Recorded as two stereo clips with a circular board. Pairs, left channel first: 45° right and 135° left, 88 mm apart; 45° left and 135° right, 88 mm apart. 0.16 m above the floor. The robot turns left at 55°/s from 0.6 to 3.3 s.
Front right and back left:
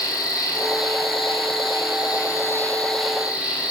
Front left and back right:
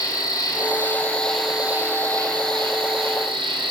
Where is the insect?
Straight ahead, 1.3 m; by 3.7 s 150° right, 1.3 m.